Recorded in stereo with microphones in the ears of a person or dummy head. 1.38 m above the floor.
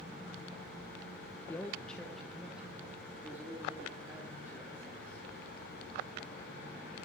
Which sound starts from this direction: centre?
A man speaking, at 1.5 s.